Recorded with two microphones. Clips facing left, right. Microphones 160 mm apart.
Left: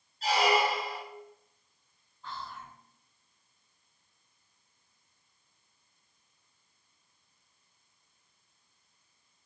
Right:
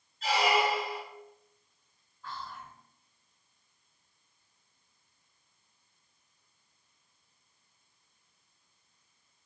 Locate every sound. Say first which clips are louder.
0.2 s a squeak: left 1 dB; 35° left (ahead or behind), 1.4 m
2.2 s whispering: even; 20° left (ahead or behind), 0.9 m